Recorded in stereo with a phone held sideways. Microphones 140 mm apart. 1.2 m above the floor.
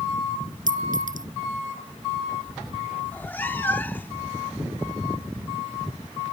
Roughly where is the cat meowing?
Centre.